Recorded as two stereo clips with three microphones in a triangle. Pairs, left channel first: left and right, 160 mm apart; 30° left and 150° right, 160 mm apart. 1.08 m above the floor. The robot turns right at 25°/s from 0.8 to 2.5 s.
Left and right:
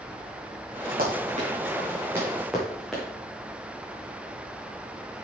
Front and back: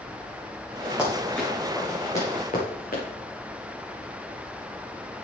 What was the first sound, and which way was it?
Running footsteps, 65° right.